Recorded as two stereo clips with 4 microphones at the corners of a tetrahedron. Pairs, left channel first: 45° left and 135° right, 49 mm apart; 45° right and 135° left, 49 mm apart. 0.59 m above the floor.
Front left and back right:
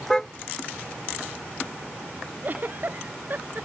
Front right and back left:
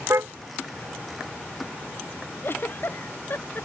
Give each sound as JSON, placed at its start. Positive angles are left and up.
{"t": 0.1, "sound": "a car horn", "azimuth_deg": 125}
{"t": 2.4, "sound": "a giggle", "azimuth_deg": -85}